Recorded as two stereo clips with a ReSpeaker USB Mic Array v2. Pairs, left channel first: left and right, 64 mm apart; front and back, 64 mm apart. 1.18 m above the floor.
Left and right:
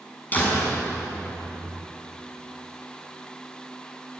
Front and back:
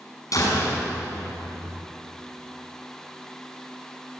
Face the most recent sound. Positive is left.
turn(degrees=25)